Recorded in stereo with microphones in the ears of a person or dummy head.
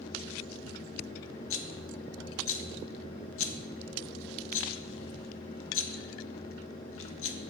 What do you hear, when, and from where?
1.5 s a rattle: 60° left (ahead or behind), 0.6 m